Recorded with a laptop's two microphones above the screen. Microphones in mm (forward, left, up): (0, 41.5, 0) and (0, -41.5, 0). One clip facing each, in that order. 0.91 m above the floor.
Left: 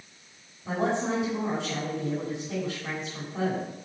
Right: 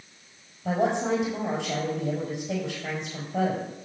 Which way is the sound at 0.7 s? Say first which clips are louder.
Right 3 dB; 70° right (ahead or behind).